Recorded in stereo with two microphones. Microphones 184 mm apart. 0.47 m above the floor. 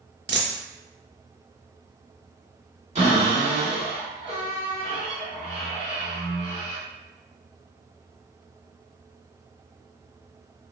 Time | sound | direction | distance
0.3 | a dropped coin | 75° right (ahead or behind) | 0.5 m
3.0 | a cupboard door | 35° right (ahead or behind) | 2.0 m